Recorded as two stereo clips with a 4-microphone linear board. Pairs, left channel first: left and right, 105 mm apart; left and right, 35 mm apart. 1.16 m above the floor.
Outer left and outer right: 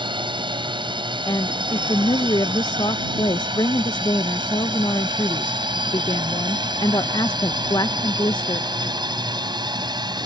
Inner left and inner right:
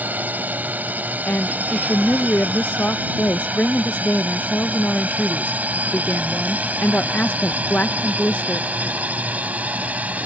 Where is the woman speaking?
45° left (ahead or behind).